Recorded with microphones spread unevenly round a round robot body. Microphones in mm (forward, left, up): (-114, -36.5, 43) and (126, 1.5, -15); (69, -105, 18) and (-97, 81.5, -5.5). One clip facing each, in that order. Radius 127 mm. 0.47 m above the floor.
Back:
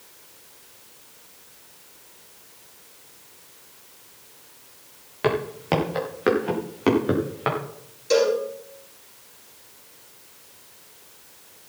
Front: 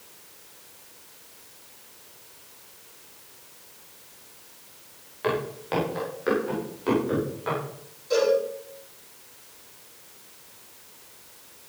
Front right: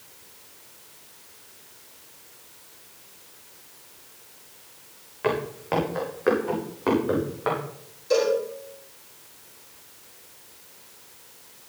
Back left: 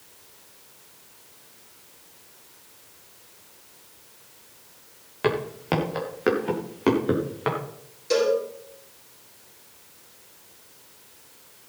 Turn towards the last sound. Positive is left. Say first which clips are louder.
# back 2 dB, even
turn(degrees=175)